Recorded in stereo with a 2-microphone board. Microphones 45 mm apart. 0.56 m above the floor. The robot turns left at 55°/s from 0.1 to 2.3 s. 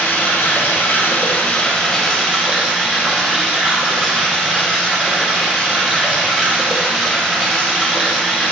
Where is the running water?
110° left, 1.5 m; by 8.5 s 15° right, 1.5 m.